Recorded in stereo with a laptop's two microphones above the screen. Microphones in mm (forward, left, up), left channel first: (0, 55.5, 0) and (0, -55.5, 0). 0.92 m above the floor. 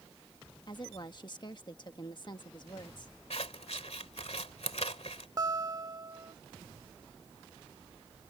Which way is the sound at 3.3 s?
75° left (ahead or behind).